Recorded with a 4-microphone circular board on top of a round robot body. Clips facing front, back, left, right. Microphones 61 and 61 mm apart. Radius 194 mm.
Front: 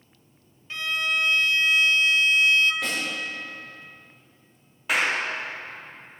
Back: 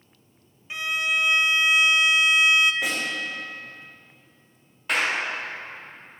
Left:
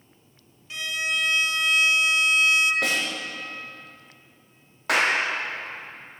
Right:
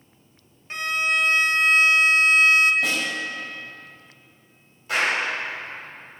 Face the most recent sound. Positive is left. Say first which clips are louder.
# front 1 dB, left 1 dB
turn(degrees=85)